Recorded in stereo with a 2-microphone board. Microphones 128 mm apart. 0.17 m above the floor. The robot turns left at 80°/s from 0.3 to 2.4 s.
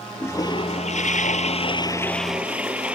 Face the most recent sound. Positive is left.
turn(degrees=-10)